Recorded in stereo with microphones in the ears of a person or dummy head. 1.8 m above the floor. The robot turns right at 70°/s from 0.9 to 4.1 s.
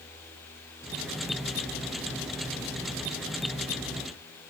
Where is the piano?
No piano in this recording.